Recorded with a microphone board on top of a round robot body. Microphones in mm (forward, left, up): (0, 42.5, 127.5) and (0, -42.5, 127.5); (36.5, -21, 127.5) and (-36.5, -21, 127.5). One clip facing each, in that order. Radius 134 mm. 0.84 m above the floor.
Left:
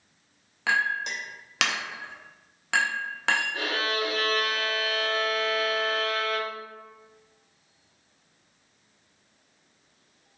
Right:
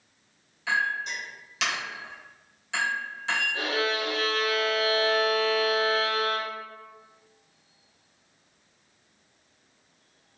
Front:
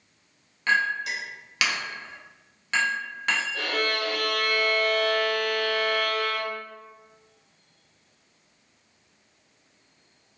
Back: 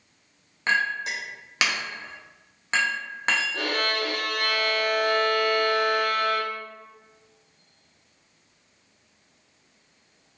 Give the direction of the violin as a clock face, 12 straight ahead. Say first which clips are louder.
Right 1 dB, back 1 dB; 7 o'clock.